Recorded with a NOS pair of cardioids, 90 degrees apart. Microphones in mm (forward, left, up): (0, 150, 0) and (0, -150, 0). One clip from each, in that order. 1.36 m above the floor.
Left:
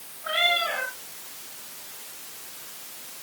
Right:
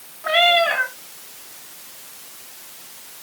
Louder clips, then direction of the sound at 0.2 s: Right 8 dB; 50° right.